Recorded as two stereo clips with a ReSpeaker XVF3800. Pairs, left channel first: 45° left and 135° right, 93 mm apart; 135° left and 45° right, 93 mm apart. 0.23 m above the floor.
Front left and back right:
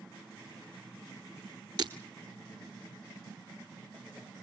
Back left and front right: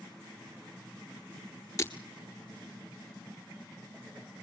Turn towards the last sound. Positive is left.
turn(degrees=-170)